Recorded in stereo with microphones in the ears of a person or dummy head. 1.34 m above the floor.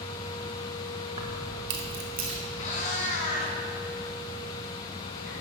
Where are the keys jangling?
40° right (ahead or behind), 1.0 m.